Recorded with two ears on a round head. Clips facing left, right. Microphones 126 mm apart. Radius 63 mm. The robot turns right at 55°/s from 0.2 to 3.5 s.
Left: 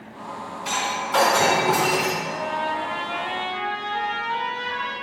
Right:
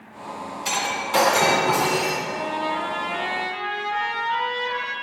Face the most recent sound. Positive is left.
turn(degrees=-50)